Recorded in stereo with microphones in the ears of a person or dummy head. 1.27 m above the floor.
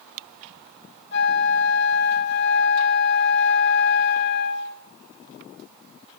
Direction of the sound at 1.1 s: 60° left (ahead or behind).